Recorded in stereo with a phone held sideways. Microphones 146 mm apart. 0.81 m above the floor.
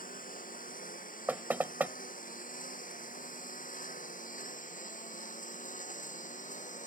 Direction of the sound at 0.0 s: 80° left.